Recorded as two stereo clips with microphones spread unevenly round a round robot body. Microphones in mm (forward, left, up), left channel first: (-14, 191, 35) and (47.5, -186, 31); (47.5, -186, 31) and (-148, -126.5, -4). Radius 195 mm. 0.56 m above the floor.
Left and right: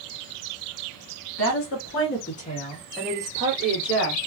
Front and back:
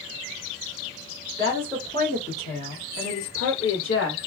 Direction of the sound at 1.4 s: 90° left.